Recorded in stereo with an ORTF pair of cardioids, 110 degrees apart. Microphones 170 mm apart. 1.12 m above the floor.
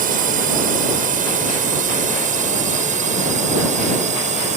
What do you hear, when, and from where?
0.0 s a drone: 55° right; by 4.6 s 45° right